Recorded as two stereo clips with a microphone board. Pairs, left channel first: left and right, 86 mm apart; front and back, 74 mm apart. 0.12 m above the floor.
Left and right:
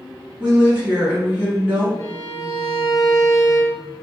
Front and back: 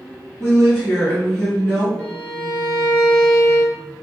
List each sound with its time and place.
0.4 s a woman speaking: 60° right, 1.4 m
2.0 s a violin: 65° left, 0.7 m